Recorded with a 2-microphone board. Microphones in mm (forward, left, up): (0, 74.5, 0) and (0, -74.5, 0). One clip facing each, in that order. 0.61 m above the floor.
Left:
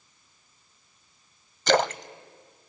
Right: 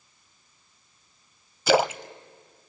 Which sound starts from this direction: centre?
A splash, at 1.7 s.